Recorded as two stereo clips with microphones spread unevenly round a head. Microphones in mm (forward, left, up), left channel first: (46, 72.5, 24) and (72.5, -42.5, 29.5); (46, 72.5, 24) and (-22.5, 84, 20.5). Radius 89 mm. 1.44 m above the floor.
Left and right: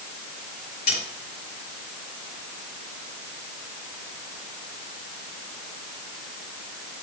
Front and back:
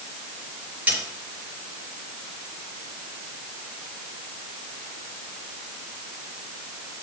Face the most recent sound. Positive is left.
turn(degrees=105)